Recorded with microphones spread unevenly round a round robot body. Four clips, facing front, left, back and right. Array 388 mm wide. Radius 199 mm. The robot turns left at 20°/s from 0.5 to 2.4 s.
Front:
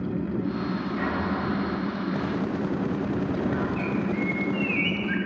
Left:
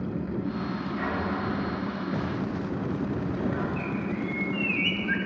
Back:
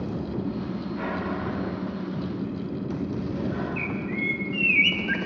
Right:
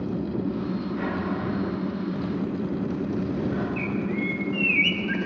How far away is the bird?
About 0.6 m.